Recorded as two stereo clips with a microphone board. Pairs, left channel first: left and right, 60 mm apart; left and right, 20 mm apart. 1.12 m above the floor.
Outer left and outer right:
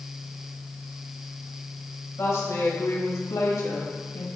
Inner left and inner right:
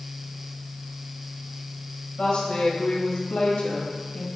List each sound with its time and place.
2.2 s a woman speaking: 55° left (ahead or behind), 1.9 m; by 4.3 s 80° left, 1.9 m